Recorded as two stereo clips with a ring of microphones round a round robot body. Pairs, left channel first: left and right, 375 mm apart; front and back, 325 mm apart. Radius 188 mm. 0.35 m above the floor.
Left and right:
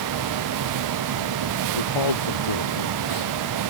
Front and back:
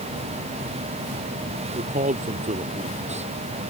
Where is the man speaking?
115° left; by 3.3 s 110° left.